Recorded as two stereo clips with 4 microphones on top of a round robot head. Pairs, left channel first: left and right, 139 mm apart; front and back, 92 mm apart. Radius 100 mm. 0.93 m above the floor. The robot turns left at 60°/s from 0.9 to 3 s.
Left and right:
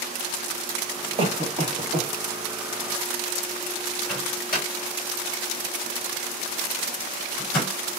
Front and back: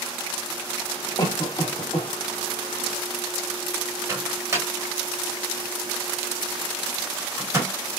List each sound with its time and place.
1.2 s a cough: 40° right, 1.6 m; by 2.1 s 95° right, 1.6 m
4.1 s a microwave: 115° left, 1.6 m